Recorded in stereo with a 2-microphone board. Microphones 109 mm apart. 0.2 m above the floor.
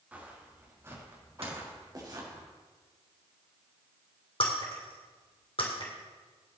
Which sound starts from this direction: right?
A dropped coin, at 1.4 s.